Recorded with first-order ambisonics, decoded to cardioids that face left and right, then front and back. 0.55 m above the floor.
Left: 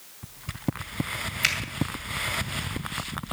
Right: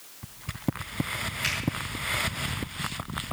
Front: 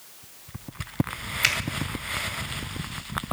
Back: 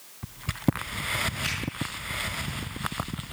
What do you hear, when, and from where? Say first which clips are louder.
1.4 s a finger snap: left 5 dB, front 8 dB; 35° left, 2.5 m